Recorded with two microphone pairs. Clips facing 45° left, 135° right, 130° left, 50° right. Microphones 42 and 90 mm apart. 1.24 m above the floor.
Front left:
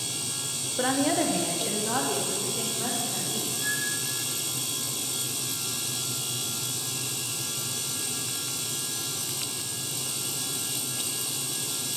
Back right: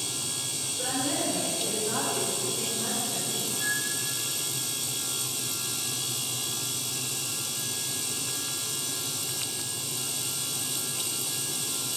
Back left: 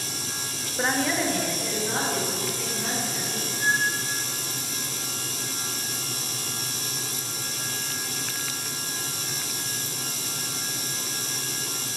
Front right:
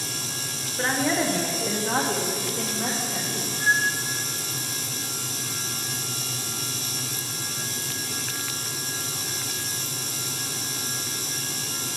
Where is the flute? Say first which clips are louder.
Even, front right 2 dB; 80° right, 1.8 m.